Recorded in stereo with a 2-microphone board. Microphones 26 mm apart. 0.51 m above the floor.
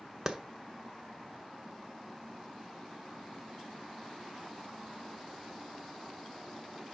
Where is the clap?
25° right (ahead or behind), 1.0 m.